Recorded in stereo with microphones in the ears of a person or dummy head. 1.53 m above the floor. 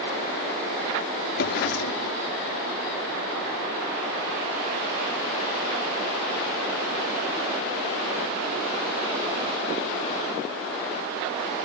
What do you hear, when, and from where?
1.4 s a drawer: 60° left (ahead or behind)